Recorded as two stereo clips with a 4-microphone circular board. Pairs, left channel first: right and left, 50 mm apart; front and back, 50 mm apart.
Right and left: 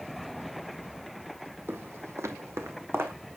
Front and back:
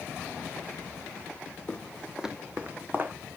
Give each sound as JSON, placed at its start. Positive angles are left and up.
{"t": 1.7, "sound": "footsteps", "azimuth_deg": 60, "distance_m": 1.3}